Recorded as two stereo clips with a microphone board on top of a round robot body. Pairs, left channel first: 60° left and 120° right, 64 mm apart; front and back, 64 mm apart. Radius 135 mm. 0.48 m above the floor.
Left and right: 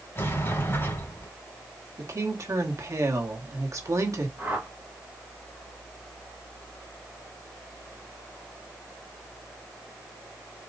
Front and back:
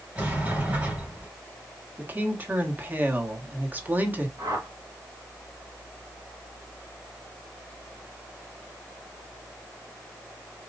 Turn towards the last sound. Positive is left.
turn(degrees=180)